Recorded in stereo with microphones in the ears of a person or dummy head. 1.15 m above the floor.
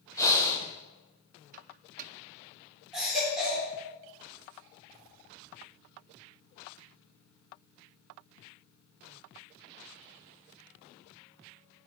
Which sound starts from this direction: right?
A microwave, at 1.5 s.